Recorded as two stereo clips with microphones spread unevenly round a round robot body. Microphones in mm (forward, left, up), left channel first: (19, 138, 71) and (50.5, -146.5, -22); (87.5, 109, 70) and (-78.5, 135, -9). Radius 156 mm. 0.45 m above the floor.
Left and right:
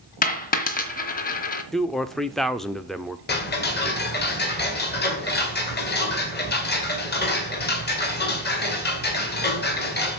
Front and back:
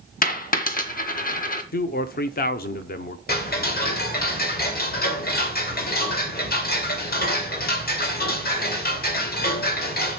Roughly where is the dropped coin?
Ahead left.